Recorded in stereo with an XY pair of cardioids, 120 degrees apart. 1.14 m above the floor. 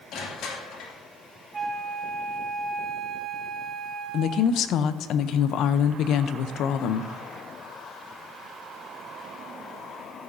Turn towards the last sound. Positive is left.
turn(degrees=65)